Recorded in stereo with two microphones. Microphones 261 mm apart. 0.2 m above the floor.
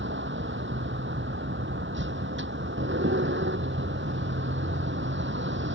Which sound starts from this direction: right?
A vehicle, at 0.0 s.